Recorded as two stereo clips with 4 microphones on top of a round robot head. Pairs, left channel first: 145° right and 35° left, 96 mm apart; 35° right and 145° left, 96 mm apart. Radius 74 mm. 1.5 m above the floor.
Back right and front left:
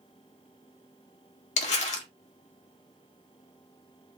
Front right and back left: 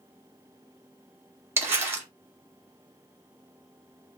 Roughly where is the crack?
No crack in this recording.